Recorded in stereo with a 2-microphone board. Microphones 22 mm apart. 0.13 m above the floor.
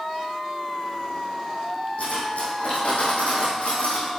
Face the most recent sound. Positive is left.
turn(degrees=80)